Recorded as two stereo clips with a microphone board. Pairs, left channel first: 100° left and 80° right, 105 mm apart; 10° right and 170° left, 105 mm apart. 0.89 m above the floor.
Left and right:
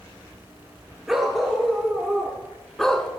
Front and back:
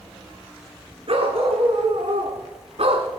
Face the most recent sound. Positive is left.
turn(degrees=-175)